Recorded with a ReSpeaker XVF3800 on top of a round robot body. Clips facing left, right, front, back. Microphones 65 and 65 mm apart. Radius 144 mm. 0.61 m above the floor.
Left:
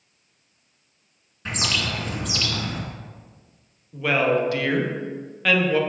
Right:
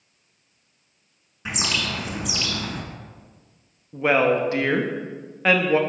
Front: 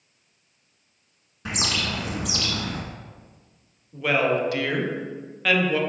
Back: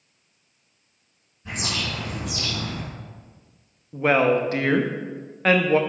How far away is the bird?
About 1.6 m.